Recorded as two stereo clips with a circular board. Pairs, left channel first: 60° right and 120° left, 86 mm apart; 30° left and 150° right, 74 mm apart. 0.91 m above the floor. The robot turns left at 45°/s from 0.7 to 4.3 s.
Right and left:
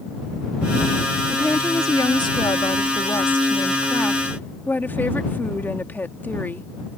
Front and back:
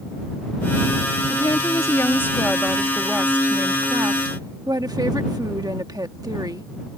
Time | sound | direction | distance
1.3 | a woman speaking | 10° left | ?